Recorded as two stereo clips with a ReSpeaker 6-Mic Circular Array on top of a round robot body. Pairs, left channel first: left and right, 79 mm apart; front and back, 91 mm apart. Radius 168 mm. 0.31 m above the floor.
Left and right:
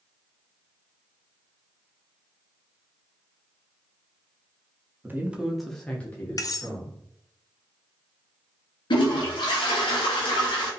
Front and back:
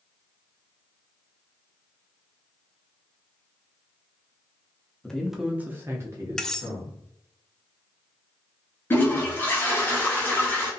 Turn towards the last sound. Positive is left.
turn(degrees=65)